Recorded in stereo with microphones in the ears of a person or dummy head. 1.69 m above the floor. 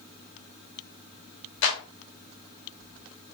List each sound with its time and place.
1.6 s a clap: 70° left (ahead or behind), 3 m